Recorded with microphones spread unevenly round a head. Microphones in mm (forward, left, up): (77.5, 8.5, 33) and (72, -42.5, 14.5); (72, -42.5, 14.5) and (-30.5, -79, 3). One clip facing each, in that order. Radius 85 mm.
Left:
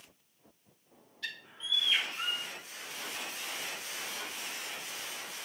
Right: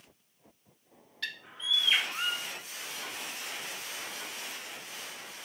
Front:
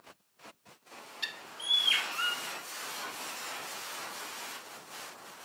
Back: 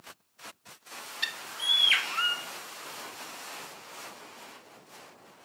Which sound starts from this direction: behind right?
A bird, at 1.2 s.